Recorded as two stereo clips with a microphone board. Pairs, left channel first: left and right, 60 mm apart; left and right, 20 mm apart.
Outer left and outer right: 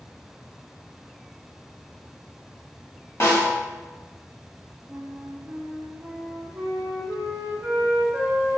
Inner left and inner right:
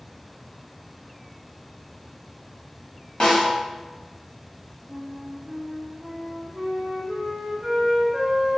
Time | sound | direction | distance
3.2 | a snare drum | 45° left (ahead or behind) | 1.2 m
4.9 | a flute | 45° right (ahead or behind) | 0.7 m